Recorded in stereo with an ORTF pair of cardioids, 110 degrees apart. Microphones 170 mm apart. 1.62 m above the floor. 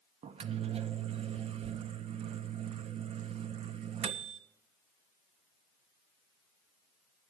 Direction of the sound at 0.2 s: 40° right.